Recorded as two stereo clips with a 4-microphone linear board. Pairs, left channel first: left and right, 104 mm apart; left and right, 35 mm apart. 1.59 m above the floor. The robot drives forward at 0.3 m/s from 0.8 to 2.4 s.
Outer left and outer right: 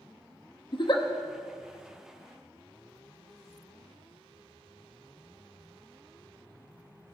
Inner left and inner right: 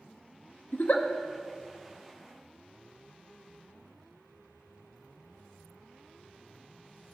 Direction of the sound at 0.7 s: 55° left (ahead or behind).